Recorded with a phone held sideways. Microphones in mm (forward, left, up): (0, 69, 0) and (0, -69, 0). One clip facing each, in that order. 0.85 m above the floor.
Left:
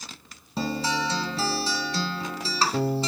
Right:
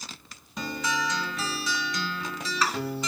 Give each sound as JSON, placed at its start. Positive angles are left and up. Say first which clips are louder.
{"t": 0.6, "sound": "a guitar", "louder": "left 3 dB", "side_deg": 30, "distance_m": 1.5}